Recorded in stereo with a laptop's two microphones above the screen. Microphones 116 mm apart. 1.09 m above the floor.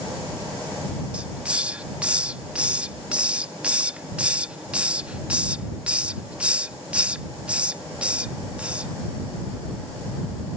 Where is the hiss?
10° right (ahead or behind).